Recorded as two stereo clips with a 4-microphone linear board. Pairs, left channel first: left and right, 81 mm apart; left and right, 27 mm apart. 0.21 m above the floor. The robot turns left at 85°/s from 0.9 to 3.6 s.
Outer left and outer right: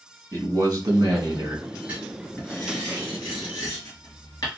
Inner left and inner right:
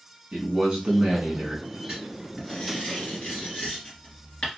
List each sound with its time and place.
0.3 s a man speaking: 65° right, 1.7 m; by 1.6 s 130° right, 1.7 m
1.9 s writing: 25° right (ahead or behind), 2.5 m; by 4.5 s 55° left (ahead or behind), 2.5 m